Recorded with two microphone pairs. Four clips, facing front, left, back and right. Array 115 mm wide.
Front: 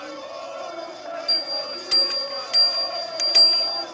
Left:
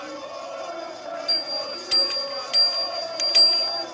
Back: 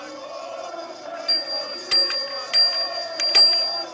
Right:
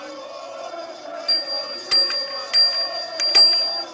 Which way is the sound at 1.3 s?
115° right.